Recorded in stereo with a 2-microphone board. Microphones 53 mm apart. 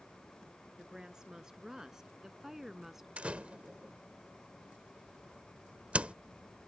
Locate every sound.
0.8 s a woman speaking: 15° right (ahead or behind); by 3.1 s 5° right (ahead or behind)
3.2 s a door slam: 25° right (ahead or behind)